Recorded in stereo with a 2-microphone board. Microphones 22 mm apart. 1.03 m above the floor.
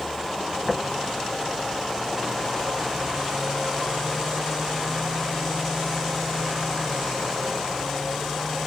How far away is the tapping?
About 1.1 m.